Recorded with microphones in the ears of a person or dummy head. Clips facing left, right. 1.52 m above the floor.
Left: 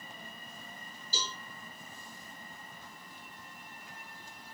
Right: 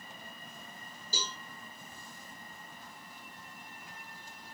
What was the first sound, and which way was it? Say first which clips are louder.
A cowbell: even; 40° right (ahead or behind).